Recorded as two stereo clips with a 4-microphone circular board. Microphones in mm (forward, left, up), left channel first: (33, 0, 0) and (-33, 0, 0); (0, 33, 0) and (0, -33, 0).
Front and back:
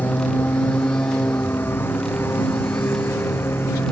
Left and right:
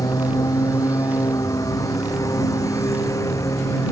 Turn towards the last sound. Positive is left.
turn(degrees=55)